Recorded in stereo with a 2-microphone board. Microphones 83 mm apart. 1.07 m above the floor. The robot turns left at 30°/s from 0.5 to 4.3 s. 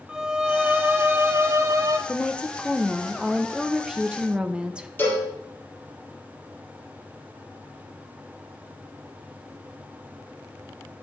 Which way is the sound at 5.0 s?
25° left (ahead or behind).